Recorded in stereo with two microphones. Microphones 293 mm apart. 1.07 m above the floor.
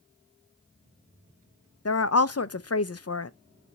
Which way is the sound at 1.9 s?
55° left (ahead or behind).